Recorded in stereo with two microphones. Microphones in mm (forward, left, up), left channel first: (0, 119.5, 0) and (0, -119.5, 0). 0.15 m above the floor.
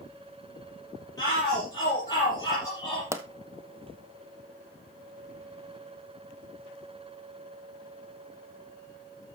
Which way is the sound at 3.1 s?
10° right (ahead or behind).